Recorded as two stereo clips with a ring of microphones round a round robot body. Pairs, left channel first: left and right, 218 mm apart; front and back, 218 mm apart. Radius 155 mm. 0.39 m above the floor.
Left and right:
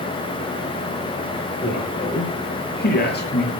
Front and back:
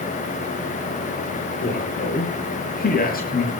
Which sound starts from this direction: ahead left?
A man speaking, at 1.6 s.